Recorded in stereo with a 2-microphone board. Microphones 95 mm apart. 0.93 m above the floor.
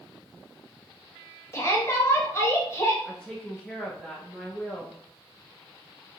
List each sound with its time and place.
1.5 s a shout: 30° left (ahead or behind), 1.0 m
3.0 s a woman speaking: 5° left (ahead or behind), 0.7 m